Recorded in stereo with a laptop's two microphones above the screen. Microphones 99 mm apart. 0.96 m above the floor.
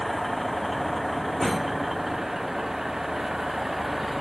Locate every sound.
0.0 s a vehicle: centre (ahead or behind); by 4.2 s 5° right (ahead or behind)